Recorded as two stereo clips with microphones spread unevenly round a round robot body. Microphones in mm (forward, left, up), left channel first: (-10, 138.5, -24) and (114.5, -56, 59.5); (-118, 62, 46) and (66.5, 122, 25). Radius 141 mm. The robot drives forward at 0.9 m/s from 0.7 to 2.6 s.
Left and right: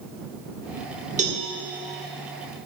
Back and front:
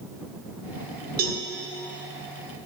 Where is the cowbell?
10° left, 1.3 m; by 1.4 s 15° left, 1.2 m.